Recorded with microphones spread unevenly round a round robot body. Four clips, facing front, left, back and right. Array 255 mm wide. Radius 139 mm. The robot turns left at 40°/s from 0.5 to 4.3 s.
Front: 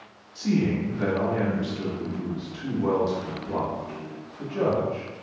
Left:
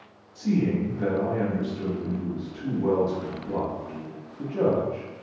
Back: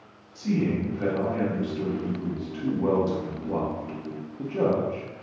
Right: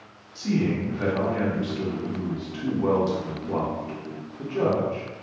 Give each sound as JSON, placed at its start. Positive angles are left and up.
{"t": 0.3, "sound": "a man speaking", "azimuth_deg": -15, "distance_m": 0.7}